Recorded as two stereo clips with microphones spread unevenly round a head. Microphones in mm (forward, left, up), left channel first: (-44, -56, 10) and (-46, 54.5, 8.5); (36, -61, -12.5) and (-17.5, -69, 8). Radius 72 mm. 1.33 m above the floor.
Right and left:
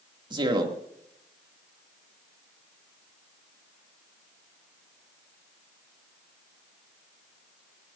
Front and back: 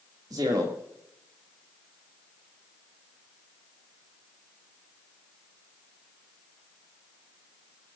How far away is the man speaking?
About 3 m.